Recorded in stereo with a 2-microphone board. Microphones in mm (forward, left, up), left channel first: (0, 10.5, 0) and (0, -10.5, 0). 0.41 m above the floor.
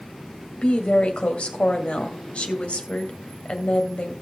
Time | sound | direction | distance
0.6 | a woman speaking | 60° left (ahead or behind) | 2 m